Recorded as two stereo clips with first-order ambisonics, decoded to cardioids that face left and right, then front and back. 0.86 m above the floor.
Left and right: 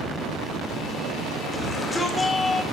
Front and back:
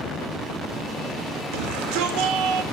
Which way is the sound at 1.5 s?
175° left.